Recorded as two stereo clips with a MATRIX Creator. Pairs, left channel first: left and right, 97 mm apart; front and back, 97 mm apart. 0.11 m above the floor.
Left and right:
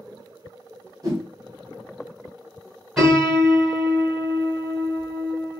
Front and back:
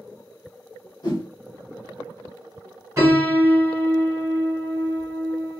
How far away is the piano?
About 1.6 m.